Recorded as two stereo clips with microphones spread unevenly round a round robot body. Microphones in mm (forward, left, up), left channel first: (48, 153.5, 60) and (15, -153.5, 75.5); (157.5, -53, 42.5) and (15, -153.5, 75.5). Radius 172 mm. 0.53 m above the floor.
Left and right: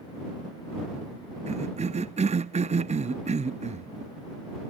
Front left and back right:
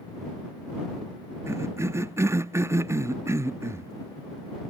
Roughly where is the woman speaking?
No woman speaking in this recording.